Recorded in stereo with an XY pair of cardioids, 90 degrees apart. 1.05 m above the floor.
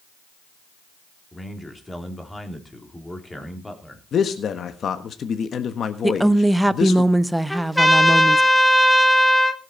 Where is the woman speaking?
10° right, 0.8 m.